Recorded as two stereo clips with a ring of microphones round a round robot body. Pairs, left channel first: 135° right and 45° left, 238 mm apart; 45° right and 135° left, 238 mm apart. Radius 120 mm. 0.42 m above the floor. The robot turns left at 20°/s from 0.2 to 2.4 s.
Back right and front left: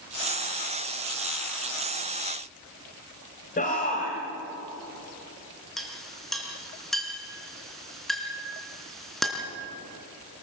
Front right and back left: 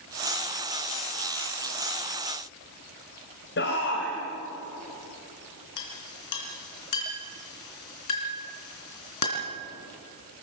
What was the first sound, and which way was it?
A shout, 80° right.